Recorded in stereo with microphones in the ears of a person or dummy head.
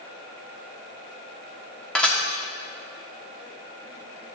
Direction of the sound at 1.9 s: 5° left (ahead or behind).